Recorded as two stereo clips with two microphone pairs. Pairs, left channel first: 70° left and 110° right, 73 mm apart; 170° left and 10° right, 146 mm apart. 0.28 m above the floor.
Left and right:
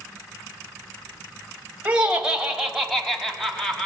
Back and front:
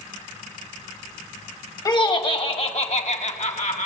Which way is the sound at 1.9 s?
165° right.